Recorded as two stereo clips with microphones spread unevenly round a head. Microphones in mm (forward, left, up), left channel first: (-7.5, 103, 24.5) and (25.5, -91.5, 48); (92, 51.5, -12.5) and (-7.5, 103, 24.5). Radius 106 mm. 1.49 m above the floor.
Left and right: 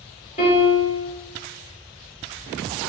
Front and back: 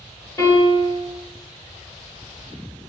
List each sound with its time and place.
0.4 s a piano: 40° left, 1.8 m